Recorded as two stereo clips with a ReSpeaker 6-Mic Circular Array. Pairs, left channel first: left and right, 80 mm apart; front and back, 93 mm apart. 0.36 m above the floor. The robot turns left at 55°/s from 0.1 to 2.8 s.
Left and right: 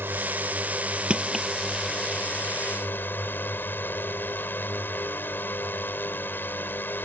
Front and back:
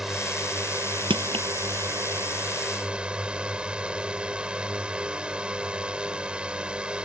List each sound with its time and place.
0.0 s a drone: 100° right; by 7.0 s 115° left
1.1 s crushing: 165° right; by 1.5 s 175° left